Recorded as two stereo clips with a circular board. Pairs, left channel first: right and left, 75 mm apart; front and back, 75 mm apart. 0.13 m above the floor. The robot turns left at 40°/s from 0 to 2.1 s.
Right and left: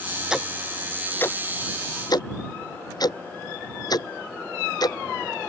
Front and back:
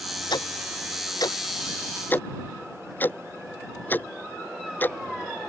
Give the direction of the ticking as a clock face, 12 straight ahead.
12 o'clock.